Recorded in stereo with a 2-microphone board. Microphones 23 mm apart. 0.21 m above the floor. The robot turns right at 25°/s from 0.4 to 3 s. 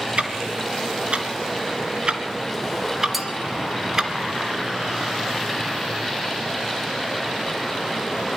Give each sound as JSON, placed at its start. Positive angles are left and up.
{"t": 0.2, "sound": "ticking", "side_deg": -65, "distance_m": 2.0}
{"t": 3.1, "sound": "a clink", "side_deg": -5, "distance_m": 2.0}